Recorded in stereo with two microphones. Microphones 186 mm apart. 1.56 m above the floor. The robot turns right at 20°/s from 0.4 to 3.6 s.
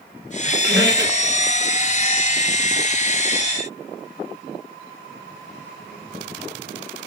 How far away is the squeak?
About 3 m.